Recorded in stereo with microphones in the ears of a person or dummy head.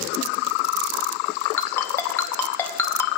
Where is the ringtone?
15° left (ahead or behind), 1.1 m.